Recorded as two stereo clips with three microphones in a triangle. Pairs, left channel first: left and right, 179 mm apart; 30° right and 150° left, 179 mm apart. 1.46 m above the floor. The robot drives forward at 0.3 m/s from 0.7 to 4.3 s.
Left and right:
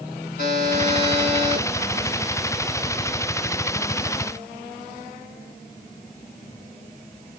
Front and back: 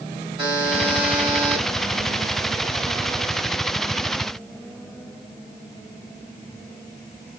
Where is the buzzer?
90° left, 4 m.